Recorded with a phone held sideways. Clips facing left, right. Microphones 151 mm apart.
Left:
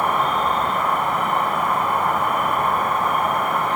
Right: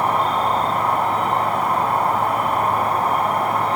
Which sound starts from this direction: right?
An insect, at 0.0 s.